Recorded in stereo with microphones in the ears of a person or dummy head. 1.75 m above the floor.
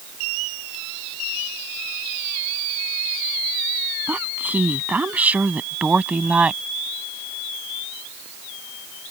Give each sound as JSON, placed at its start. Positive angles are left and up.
{"t": 4.1, "sound": "a woman speaking", "side_deg": -5}